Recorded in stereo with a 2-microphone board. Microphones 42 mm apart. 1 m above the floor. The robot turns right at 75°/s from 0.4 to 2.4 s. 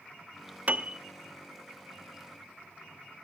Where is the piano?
40° right (ahead or behind), 0.7 m; by 1.0 s 20° right (ahead or behind), 0.7 m.